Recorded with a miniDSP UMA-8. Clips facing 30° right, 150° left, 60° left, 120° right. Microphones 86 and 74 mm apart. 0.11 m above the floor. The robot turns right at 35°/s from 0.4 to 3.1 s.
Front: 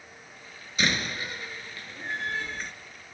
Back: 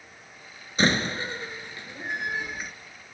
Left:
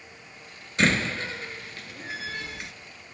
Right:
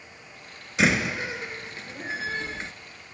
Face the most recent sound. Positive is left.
turn(degrees=-120)